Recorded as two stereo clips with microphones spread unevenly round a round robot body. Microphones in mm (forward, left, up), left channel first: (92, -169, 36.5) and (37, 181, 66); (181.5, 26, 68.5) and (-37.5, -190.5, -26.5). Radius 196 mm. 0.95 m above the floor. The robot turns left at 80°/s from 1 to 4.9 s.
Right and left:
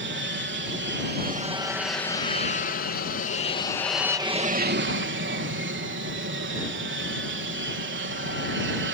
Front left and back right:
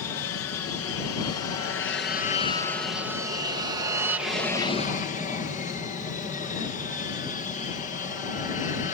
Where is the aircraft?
75° left; by 8.9 s 120° left.